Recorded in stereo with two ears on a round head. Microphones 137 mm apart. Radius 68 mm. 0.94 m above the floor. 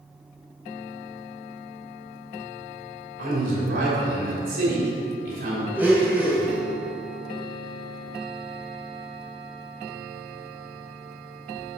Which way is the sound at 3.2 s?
65° right (ahead or behind).